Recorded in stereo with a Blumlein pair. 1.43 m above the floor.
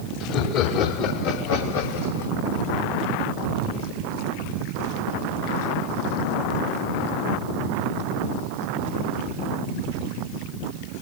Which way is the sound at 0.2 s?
40° left.